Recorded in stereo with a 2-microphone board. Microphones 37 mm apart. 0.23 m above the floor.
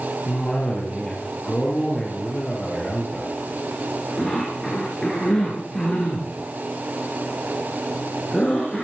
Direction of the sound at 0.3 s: 15° left (ahead or behind).